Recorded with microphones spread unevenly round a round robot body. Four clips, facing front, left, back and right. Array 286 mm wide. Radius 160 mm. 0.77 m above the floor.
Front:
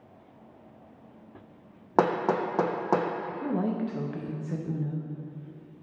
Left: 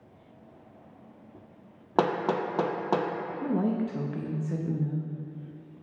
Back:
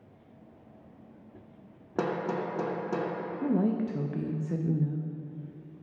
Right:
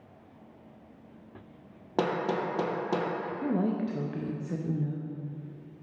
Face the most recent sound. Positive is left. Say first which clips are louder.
# left 1 dB, back 3 dB
turn(degrees=150)